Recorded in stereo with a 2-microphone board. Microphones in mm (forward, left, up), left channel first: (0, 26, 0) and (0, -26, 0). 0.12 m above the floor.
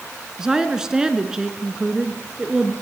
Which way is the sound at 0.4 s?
15° right (ahead or behind).